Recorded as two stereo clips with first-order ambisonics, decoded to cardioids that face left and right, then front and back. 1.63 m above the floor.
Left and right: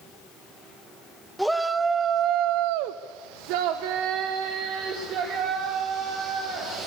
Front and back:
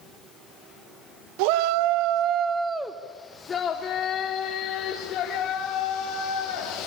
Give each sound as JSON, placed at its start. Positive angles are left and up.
{"t": 1.4, "sound": "a shout", "azimuth_deg": 180, "distance_m": 1.2}